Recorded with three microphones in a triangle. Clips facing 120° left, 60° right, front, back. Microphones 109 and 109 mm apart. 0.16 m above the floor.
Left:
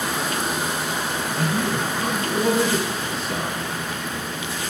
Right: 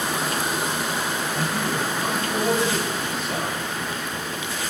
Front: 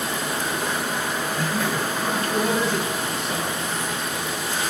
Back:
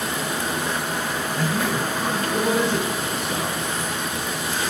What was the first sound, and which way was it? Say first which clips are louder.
A man speaking: left 5 dB, back 3 dB; 95° left.